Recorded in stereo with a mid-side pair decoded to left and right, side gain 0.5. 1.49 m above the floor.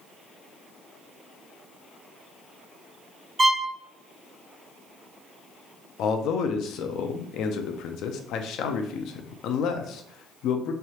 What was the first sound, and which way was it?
A violin, 30° right.